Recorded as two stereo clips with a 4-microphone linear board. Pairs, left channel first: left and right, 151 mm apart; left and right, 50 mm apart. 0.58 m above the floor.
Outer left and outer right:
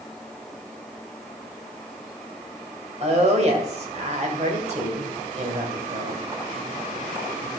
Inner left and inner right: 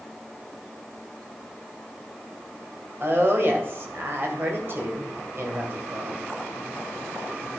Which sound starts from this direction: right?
A woman speaking, at 3.0 s.